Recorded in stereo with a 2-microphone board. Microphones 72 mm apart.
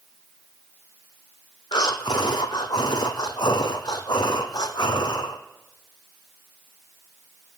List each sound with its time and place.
1.7 s breathing: 80° left, 0.9 m